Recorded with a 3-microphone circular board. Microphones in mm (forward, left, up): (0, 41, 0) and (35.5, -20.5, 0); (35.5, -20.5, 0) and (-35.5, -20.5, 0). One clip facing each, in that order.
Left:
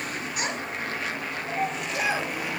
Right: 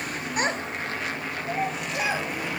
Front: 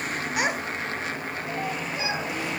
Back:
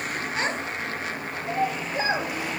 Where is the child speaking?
65° right, 0.9 m; by 2.6 s 160° right, 1.5 m.